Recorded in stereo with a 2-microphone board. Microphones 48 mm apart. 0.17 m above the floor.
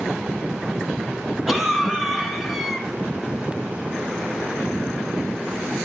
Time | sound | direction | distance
1.5 | a cough | 5° right (ahead or behind) | 1.2 m